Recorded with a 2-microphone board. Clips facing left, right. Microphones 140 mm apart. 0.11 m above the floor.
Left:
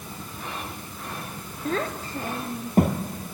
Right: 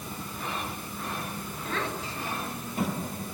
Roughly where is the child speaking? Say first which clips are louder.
Left 6 dB; left.